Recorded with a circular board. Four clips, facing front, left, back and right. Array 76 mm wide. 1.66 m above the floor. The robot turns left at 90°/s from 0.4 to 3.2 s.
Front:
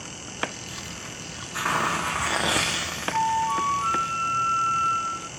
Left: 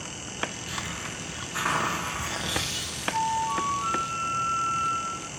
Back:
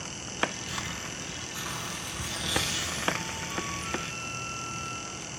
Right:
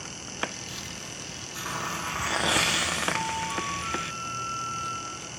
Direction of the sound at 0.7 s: 125° left.